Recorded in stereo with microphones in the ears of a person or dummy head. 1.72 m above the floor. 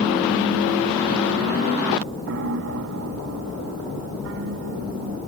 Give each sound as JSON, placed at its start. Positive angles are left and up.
{"t": 2.3, "sound": "a piano", "side_deg": -65}